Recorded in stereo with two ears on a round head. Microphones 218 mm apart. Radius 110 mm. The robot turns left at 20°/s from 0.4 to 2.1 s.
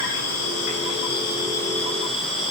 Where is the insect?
55° left, 9 m; by 2.5 s 20° left, 9 m.